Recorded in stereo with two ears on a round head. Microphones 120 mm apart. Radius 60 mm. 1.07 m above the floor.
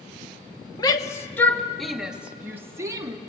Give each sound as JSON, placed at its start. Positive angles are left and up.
{"t": 0.8, "sound": "a shout", "side_deg": 30, "distance_m": 1.5}